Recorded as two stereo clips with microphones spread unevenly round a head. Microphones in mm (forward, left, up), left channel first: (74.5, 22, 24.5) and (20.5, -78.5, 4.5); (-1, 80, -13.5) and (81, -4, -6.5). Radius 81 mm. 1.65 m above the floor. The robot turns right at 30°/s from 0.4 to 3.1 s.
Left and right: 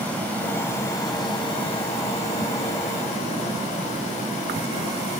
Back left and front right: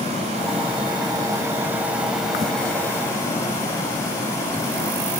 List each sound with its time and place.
0.0 s running water: 15° right, 8 m; by 5.2 s 65° left, 8 m